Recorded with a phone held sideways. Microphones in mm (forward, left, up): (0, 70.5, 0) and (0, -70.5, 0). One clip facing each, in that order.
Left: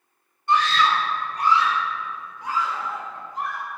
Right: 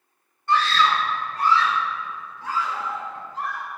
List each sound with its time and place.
0.5 s a scream: 20° left (ahead or behind), 4.5 m; by 3.7 s 15° left (ahead or behind), 6.5 m